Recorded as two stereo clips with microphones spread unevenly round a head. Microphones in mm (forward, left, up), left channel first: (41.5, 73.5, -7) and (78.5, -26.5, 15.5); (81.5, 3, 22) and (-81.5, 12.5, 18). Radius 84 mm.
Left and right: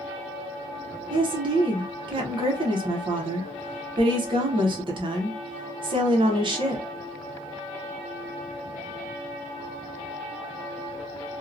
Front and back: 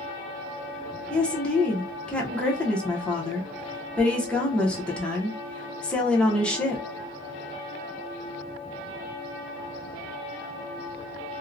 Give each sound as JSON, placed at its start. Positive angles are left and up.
{"t": 1.1, "sound": "a woman speaking", "azimuth_deg": -85, "distance_m": 0.7}